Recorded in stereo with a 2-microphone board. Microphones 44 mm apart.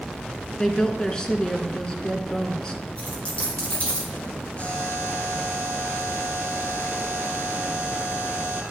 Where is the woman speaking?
20° left (ahead or behind), 1.1 m.